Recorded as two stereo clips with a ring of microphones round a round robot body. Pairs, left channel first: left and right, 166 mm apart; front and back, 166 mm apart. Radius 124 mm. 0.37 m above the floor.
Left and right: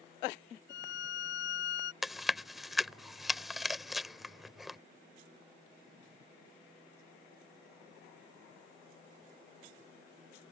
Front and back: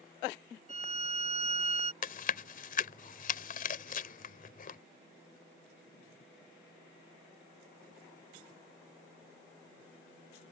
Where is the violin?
130° left.